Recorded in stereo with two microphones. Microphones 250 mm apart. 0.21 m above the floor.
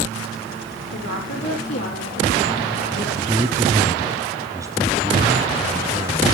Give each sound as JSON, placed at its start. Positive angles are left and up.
{"t": 0.9, "sound": "a woman speaking", "side_deg": 75, "distance_m": 8.0}
{"t": 3.1, "sound": "a man speaking", "side_deg": -15, "distance_m": 1.1}